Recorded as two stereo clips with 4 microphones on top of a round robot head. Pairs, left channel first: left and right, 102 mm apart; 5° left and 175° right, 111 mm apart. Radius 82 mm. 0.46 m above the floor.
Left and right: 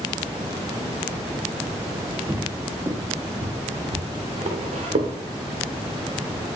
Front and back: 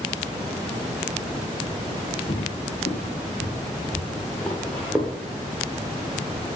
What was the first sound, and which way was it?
Footsteps, 15° right.